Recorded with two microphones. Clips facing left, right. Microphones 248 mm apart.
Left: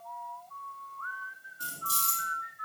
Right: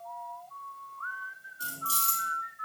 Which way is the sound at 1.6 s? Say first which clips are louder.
Right 2 dB; 20° left (ahead or behind).